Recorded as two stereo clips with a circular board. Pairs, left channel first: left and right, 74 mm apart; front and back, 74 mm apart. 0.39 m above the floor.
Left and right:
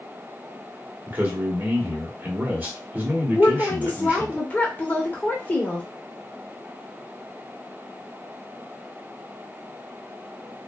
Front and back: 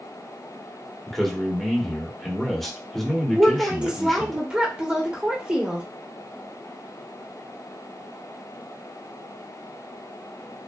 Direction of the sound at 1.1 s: 85° right.